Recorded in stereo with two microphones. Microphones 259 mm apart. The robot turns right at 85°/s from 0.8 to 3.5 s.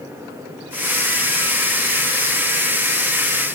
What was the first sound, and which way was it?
Only background noise.